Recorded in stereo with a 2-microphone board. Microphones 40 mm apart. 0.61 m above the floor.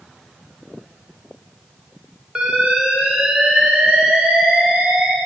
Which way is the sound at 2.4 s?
25° right (ahead or behind).